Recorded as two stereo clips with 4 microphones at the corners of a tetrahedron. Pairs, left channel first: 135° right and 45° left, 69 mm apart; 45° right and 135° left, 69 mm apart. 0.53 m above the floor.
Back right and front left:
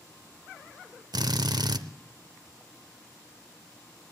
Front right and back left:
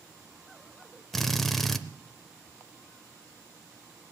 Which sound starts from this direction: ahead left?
A drill, at 1.1 s.